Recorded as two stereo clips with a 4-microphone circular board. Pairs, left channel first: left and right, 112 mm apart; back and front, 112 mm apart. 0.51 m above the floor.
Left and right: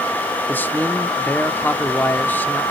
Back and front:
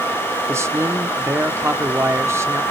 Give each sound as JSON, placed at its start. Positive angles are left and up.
{"t": 0.5, "sound": "a man speaking", "azimuth_deg": 35, "distance_m": 1.0}